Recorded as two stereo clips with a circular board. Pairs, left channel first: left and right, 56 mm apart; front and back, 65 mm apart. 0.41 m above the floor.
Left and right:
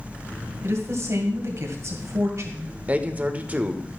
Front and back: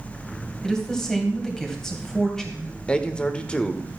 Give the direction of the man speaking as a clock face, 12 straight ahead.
2 o'clock.